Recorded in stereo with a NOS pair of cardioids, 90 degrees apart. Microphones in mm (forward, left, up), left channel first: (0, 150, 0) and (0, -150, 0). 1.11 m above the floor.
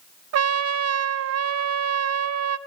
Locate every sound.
0.3 s a trumpet: 60° right, 0.9 m